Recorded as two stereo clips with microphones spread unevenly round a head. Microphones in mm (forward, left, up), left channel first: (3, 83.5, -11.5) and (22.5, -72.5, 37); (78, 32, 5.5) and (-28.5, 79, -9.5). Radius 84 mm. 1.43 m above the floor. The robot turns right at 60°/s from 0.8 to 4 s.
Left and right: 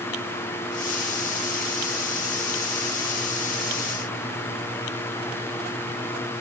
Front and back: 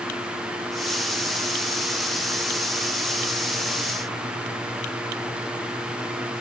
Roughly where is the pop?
No pop in this recording.